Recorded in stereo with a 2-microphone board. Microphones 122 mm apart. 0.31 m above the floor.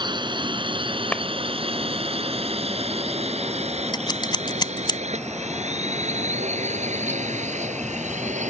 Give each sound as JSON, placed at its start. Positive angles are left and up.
{"t": 0.0, "sound": "a drone", "side_deg": -40}
{"t": 1.1, "sound": "a clap", "side_deg": 10}
{"t": 3.9, "sound": "scissors", "side_deg": 35}